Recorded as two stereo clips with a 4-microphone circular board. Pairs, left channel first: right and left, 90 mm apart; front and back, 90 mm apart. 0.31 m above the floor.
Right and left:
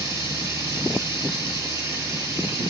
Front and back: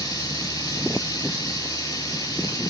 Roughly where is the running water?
Ahead left.